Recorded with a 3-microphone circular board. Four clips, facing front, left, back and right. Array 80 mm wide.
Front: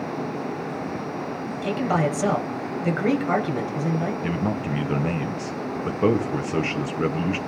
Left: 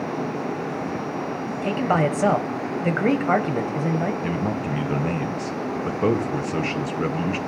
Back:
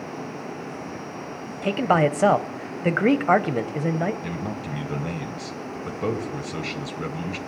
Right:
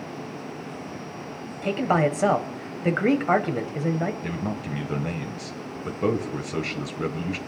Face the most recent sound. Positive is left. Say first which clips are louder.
# left 5 dB, front 5 dB
turn(degrees=30)